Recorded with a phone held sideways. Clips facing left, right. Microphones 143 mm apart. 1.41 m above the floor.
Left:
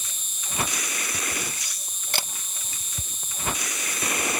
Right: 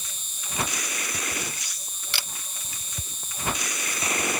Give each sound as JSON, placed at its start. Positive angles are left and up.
{"t": 0.0, "sound": "an insect", "side_deg": 80}
{"t": 2.1, "sound": "a camera shutter", "side_deg": 40}